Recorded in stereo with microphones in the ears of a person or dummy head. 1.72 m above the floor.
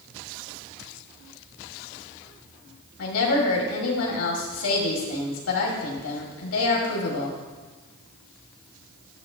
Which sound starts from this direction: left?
A woman speaking, at 3.0 s.